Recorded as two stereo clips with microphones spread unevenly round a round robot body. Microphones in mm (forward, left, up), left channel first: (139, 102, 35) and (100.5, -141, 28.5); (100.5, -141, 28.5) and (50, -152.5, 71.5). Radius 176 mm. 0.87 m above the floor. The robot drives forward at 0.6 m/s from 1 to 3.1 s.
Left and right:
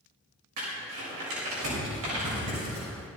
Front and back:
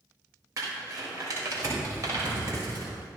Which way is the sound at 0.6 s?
145° right.